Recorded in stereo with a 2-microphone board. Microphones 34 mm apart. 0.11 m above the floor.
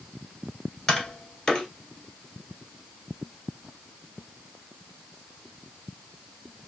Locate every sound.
0.9 s tapping: 10° left (ahead or behind), 1.4 m